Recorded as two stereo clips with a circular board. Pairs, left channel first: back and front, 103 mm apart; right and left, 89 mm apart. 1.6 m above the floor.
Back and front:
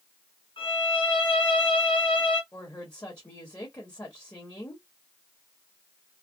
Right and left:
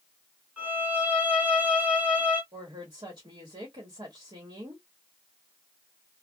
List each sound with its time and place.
0.6 s a violin: 160° left, 1.6 m
2.5 s a woman speaking: 115° left, 1.4 m